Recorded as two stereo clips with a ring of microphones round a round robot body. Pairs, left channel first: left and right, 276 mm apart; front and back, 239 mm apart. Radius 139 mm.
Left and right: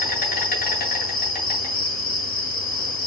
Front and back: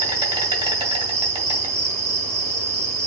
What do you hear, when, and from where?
0.0 s an insect: 130° left, 1.5 m